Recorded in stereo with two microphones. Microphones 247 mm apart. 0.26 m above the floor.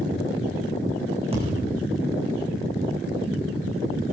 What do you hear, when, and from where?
1.3 s a thud: 25° right (ahead or behind), 6 m